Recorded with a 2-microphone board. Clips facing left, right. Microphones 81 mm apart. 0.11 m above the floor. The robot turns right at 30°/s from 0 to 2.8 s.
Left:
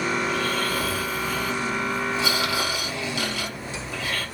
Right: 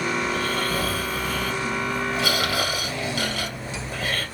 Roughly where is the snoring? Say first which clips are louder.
Even; behind right.